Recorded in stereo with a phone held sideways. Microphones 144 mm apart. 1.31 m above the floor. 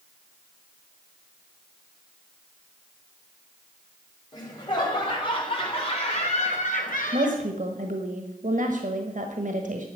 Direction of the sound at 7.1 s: 65° right (ahead or behind).